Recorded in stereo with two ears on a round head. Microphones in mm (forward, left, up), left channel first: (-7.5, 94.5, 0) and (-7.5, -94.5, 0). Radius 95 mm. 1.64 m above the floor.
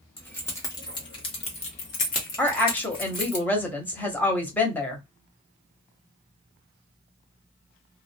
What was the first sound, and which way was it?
Keys jangling, 10° left (ahead or behind).